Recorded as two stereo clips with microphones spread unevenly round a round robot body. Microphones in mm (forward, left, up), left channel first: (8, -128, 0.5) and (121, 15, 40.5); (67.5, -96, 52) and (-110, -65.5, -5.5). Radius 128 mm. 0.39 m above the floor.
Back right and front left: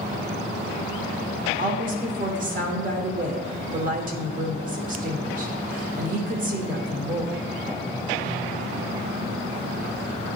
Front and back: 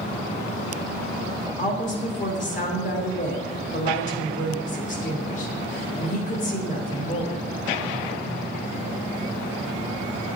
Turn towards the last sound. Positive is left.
turn(degrees=40)